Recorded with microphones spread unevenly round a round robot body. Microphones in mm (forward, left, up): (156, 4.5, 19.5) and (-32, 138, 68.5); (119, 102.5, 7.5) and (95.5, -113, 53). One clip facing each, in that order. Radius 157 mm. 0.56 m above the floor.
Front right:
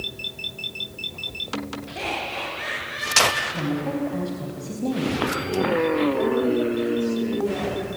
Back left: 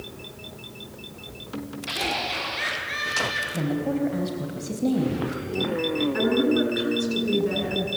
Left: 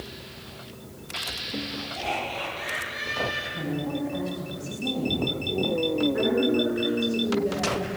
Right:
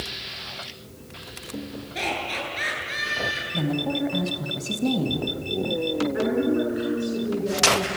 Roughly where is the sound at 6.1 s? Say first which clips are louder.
Even, even; behind.